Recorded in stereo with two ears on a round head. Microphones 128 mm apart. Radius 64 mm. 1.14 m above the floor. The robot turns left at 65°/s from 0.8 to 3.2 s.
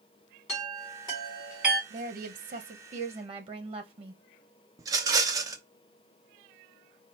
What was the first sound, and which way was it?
A chime, 45° left (ahead or behind).